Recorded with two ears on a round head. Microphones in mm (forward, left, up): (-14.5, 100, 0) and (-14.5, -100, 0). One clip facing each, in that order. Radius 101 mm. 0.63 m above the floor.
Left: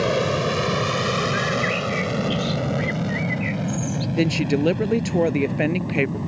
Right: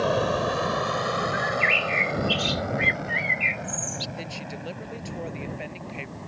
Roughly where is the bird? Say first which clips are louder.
Left 4 dB; right.